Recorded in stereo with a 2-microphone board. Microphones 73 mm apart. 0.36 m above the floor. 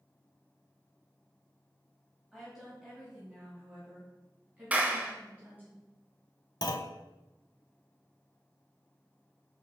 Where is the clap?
20° right (ahead or behind), 1.3 m.